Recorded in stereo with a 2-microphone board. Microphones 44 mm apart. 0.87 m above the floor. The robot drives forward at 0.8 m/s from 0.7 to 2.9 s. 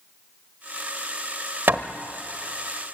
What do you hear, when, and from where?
1.7 s hammering: 55° right (ahead or behind), 1.0 m; by 1.9 s 60° right (ahead or behind), 1.0 m